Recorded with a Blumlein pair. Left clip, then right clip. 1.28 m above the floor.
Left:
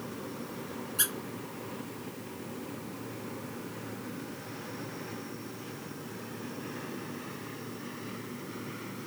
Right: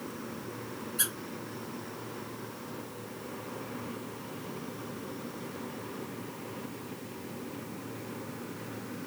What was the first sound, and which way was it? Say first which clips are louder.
A squeak: left 2 dB; 10° left.